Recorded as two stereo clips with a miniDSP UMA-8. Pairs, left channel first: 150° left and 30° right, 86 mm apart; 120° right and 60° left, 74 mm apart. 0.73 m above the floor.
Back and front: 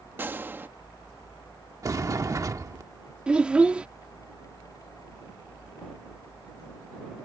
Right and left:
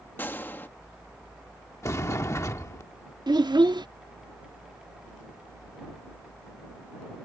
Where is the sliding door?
75° right.